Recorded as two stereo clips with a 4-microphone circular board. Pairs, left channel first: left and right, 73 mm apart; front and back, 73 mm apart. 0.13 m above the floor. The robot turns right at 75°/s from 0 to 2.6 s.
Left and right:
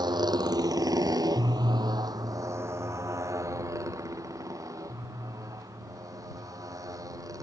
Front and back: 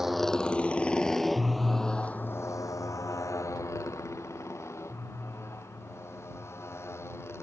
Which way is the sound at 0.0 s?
95° right.